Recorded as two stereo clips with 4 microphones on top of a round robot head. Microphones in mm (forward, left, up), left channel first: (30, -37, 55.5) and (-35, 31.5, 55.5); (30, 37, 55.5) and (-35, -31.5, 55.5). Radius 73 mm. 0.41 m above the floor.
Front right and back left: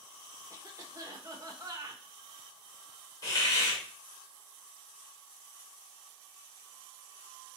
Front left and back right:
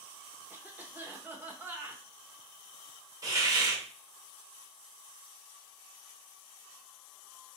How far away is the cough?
About 1.1 m.